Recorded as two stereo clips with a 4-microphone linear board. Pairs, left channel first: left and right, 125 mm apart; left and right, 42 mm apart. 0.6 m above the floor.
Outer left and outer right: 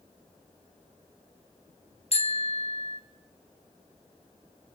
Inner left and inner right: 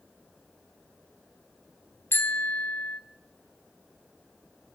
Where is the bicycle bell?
55° left (ahead or behind), 3 m.